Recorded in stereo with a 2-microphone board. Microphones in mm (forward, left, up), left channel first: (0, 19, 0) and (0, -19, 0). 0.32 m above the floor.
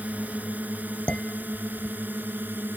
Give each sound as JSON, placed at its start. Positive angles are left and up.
{"t": 0.0, "sound": "a drone", "side_deg": -50}
{"t": 1.1, "sound": "dishes clattering", "side_deg": 35}